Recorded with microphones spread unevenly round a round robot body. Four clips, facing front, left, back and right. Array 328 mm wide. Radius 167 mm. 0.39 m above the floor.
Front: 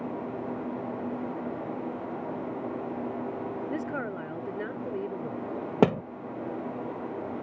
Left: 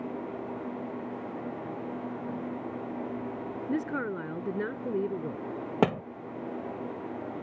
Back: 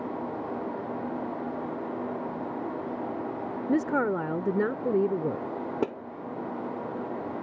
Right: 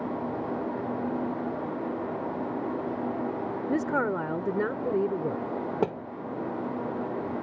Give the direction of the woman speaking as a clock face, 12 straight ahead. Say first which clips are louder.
Right 4 dB, back 7 dB; 5 o'clock.